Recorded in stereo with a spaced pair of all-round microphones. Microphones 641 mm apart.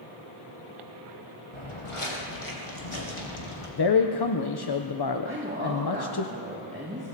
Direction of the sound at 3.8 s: 45° left (ahead or behind).